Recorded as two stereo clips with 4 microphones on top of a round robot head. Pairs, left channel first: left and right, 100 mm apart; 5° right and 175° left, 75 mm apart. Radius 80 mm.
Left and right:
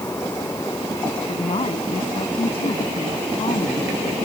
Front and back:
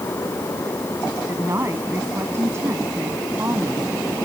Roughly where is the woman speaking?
Behind left.